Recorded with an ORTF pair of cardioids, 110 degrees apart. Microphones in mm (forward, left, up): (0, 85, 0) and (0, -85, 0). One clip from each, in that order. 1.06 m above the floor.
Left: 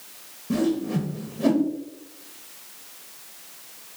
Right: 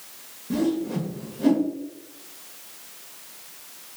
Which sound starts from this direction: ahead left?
A whoosh, at 0.5 s.